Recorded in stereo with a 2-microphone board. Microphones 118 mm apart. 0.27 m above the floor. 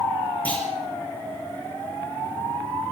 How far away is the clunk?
About 6 m.